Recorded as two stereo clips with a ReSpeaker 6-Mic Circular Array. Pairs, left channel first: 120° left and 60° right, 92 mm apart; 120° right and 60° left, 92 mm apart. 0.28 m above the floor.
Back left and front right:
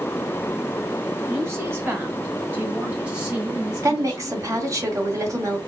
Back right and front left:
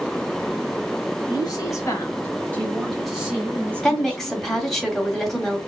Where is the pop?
No pop in this recording.